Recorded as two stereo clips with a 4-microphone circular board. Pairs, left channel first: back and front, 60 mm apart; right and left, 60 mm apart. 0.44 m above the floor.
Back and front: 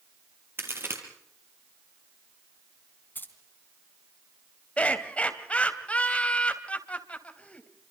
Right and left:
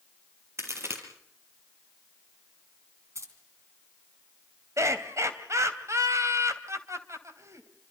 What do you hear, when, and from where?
0.6 s a crack: 50° left, 4 m
3.1 s keys jangling: 125° left, 3 m
4.8 s laughter: 110° left, 3 m